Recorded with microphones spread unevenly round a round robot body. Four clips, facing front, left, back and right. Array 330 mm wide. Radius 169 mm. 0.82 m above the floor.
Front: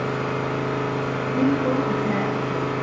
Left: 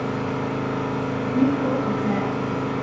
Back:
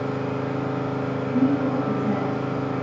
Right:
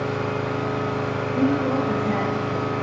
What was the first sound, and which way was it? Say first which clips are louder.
An engine running: even, front 1 dB; 105° left.